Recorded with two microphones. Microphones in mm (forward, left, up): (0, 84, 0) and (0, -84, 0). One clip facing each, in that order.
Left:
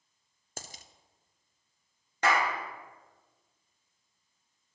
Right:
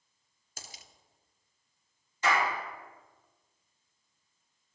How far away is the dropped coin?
About 0.6 m.